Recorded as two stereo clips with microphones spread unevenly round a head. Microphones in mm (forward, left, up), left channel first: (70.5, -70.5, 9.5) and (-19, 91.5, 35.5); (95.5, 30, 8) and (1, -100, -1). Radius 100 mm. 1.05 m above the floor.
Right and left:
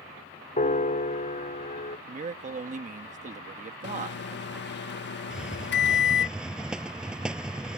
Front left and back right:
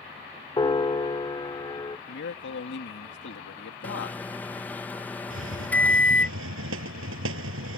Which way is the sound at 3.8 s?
25° right.